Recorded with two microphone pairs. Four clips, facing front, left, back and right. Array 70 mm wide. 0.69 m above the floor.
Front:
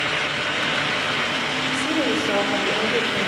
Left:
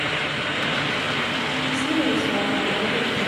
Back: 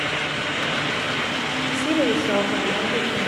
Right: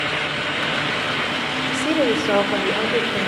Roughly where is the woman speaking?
Right.